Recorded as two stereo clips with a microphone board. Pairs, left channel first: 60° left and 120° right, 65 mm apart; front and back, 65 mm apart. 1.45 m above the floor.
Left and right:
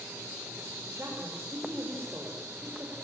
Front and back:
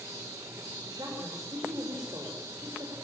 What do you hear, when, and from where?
0.8 s a woman speaking: 175° right, 5.5 m